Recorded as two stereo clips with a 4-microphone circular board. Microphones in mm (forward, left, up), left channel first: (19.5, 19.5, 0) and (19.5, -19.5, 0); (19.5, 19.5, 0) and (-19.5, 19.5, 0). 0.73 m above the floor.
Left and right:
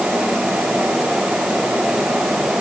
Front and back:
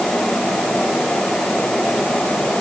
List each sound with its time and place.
Only background noise.